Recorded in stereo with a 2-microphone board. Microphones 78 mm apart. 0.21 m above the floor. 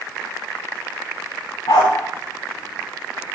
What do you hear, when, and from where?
1.7 s a dog barking: 75° left (ahead or behind), 5 m